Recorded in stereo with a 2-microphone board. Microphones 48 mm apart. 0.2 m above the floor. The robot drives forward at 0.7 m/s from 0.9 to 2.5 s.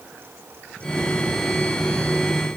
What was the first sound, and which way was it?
Only background noise.